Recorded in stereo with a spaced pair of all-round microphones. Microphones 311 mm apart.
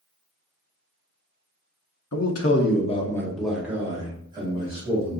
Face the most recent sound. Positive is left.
turn(degrees=-20)  # may be behind; listen again after turning